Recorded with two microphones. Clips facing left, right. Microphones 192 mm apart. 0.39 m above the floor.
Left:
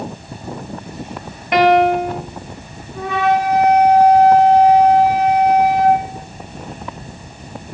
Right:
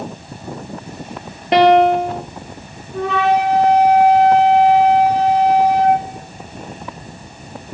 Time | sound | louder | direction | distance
1.5 | a piano | right 2 dB | 30° right (ahead or behind) | 0.9 m
2.9 | a flute | right 1 dB | 85° right | 6 m